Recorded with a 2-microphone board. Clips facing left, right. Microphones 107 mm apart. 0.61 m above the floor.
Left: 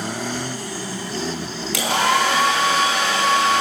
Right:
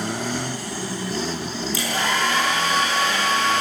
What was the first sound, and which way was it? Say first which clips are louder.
A hair dryer: left 6 dB; 75° left (ahead or behind).